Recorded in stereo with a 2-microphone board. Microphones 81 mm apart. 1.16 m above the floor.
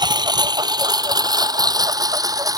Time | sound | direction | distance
0.0 | a lawn mower | 65° right (ahead or behind) | ?